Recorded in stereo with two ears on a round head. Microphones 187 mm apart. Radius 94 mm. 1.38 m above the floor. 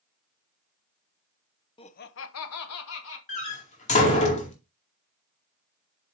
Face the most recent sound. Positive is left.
turn(degrees=35)  # may be behind; listen again after turning